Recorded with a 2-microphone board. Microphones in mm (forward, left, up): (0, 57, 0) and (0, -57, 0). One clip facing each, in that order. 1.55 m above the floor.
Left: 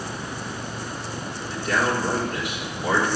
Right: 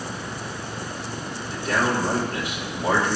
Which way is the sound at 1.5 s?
35° right (ahead or behind).